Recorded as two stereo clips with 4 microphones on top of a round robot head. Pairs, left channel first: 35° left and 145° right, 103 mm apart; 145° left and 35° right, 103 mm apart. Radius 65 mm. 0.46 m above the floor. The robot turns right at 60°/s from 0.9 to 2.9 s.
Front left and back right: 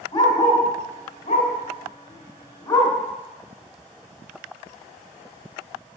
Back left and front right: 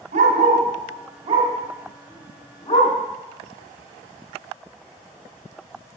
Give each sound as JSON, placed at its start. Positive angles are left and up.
{"t": 0.1, "sound": "a dog barking", "azimuth_deg": -15, "distance_m": 1.5}